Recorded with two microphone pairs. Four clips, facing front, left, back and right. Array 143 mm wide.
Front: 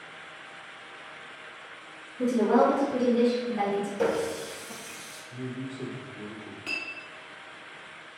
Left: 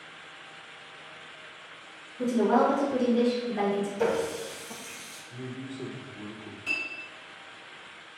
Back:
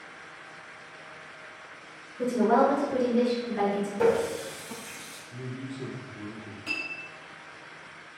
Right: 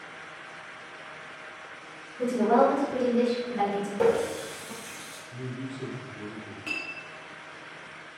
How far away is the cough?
I don't hear a cough.